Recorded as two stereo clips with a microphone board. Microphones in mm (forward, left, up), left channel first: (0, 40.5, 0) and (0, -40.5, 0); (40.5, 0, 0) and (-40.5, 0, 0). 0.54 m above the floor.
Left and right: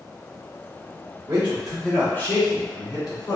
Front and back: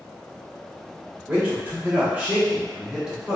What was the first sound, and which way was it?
A man speaking, 120° right.